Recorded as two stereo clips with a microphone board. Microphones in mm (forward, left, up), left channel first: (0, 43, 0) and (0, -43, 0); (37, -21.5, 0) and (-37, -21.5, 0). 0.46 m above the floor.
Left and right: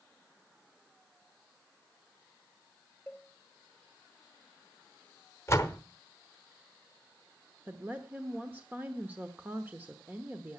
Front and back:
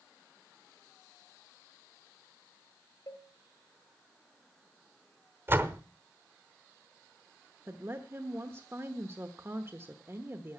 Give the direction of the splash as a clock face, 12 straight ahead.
No splash in this recording.